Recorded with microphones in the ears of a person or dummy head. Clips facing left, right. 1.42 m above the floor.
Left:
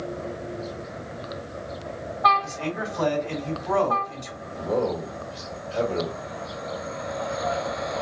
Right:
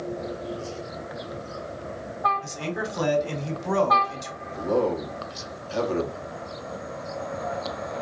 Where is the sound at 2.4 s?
70° right (ahead or behind), 1.4 m.